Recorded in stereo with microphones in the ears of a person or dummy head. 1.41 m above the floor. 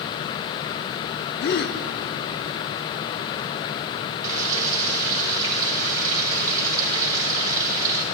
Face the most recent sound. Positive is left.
turn(degrees=-25)  # may be behind; listen again after turning